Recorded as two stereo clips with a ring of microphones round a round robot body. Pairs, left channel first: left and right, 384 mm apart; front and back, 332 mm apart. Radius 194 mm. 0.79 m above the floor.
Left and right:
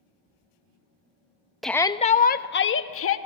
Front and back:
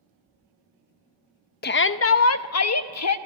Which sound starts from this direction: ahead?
A shout, at 1.6 s.